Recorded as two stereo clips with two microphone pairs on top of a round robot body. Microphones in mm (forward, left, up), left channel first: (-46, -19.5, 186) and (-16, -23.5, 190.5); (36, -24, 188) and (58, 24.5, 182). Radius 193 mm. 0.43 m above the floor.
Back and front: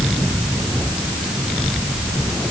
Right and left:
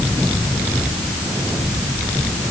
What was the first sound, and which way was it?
Only background noise.